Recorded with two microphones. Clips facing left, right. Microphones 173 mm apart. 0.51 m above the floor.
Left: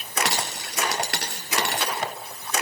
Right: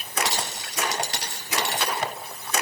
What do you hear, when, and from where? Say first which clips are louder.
0.2 s a dropped coin: left 1 dB; 70° left (ahead or behind), 3 m